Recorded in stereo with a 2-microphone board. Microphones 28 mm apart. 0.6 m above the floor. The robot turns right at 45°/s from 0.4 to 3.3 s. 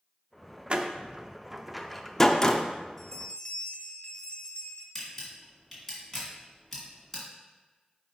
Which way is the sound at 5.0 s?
10° left (ahead or behind).